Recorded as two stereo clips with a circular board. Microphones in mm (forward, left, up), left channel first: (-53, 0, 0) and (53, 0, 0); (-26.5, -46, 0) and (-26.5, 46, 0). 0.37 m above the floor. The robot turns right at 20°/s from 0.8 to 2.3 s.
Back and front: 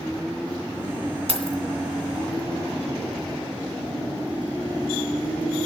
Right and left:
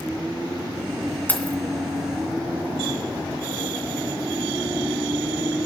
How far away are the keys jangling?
About 2.5 m.